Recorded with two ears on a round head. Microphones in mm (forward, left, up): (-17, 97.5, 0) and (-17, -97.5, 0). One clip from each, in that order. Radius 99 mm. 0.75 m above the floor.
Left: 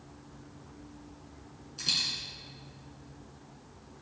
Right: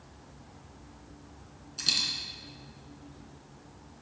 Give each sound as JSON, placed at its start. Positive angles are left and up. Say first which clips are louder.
{"t": 1.8, "sound": "a dropped coin", "louder": "right 2 dB", "side_deg": -20, "distance_m": 2.5}